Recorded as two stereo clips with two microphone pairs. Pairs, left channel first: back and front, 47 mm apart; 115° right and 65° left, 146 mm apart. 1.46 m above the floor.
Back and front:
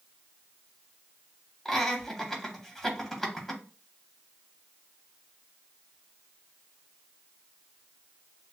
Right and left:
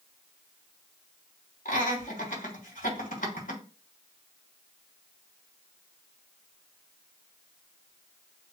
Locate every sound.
1.6 s laughter: 95° right, 1.7 m